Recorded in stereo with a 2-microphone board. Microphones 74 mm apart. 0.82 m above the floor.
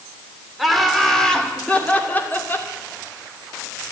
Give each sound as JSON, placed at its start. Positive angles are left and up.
{"t": 0.6, "sound": "laughter", "side_deg": 0, "distance_m": 3.0}